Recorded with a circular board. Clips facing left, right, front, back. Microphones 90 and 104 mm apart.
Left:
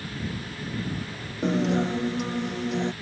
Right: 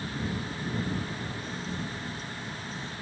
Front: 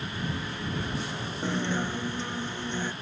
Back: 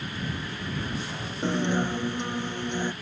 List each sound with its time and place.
1.4 s a guitar: 105° left